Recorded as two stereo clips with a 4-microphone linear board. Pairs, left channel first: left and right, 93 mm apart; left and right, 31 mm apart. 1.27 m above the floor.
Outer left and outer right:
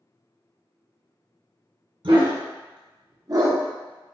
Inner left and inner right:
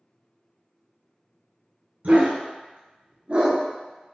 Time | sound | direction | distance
2.0 | a dog barking | 65° right (ahead or behind) | 1.8 m